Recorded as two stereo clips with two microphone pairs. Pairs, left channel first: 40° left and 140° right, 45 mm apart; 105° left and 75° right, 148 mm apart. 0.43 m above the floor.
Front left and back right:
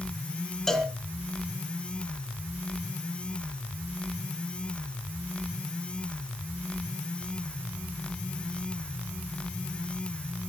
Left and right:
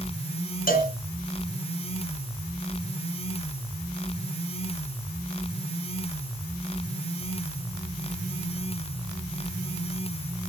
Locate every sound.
0.7 s a cowbell: 120° left, 3 m